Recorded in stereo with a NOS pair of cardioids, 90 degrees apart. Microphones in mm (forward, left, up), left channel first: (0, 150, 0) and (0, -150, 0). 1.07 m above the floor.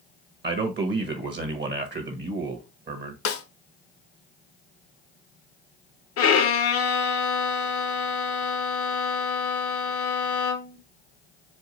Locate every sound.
0.4 s a man speaking: 40° right, 1.0 m
3.2 s a snare drum: 50° left, 0.8 m
6.2 s a violin: 55° left, 0.7 m